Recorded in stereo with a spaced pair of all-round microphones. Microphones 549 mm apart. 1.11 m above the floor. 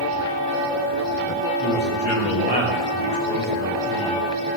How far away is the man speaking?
About 5 m.